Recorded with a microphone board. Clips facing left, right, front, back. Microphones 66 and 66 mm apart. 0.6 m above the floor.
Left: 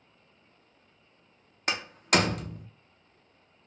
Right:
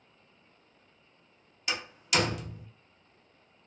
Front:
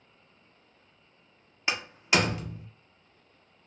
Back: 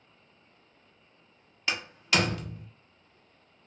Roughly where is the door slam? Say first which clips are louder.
Left 5 dB, front 2 dB; ahead left.